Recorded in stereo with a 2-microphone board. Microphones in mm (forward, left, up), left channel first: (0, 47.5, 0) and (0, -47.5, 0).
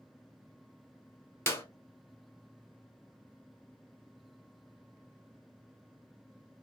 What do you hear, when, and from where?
1.5 s a clap: 25° left (ahead or behind), 0.9 m